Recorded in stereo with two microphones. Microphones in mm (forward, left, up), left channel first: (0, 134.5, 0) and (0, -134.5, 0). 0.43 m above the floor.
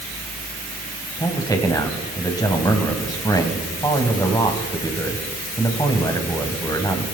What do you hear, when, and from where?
1.2 s a man speaking: 15° left (ahead or behind), 2.5 m